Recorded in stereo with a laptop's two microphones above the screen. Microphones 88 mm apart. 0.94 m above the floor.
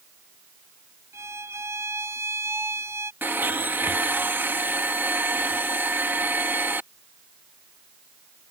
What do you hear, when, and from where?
1.1 s a violin: 30° right (ahead or behind)
3.2 s a blender: 25° right (ahead or behind)